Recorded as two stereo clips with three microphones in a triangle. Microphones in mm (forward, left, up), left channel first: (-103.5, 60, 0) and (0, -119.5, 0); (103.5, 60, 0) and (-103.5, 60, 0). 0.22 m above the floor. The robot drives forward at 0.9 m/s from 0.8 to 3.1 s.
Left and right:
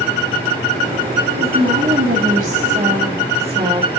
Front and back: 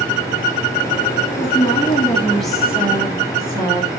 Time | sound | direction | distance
1.4 | a woman speaking | 50° right | 2 m